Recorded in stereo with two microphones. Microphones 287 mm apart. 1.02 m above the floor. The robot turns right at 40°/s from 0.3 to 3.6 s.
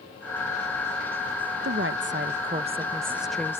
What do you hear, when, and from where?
1.6 s a woman speaking: 65° right; by 3.6 s 10° left